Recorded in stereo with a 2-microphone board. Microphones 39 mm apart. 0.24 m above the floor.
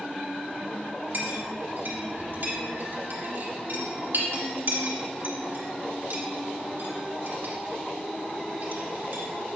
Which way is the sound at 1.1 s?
55° right (ahead or behind).